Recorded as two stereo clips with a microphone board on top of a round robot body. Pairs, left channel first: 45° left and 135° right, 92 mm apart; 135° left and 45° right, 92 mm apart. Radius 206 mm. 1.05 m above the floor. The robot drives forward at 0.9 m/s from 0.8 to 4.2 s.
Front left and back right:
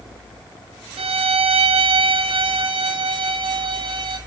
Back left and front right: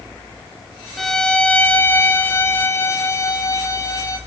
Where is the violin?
140° right, 1.3 m; by 4.2 s 165° right, 4 m.